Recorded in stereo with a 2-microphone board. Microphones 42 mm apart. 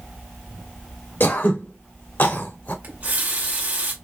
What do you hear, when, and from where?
1.2 s throat clearing: 45° left (ahead or behind), 0.8 m
2.8 s a running tap: 35° right (ahead or behind), 0.8 m